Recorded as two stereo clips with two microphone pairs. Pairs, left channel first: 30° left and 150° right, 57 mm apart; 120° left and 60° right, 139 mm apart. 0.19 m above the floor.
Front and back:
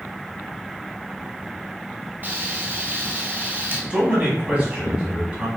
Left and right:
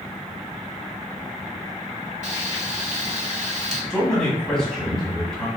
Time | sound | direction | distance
2.2 | frying | 90° right | 0.9 m
3.9 | a man speaking | 170° right | 1.6 m